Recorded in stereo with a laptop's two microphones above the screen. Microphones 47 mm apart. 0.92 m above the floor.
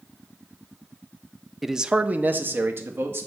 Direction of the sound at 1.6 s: Centre (ahead or behind).